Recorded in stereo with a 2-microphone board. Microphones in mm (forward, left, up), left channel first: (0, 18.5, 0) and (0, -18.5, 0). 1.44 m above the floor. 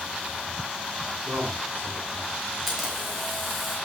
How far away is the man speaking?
About 5 m.